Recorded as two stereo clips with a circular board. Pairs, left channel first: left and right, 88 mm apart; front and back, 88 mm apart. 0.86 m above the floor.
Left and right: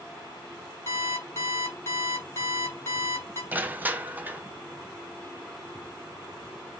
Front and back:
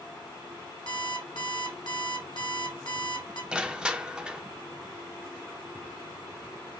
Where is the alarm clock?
25° left, 2.5 m.